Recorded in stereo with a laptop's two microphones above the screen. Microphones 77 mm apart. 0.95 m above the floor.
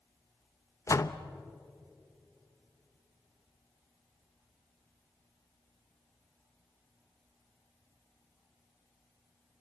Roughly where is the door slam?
Left.